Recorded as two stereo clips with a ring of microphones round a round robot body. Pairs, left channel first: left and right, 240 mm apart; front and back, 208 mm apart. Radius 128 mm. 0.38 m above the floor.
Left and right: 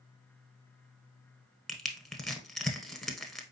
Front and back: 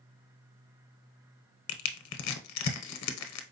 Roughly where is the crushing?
Ahead.